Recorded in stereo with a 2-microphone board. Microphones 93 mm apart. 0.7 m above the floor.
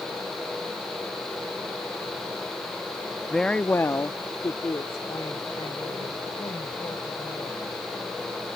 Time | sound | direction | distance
3.3 | a woman speaking | 5° left (ahead or behind) | ?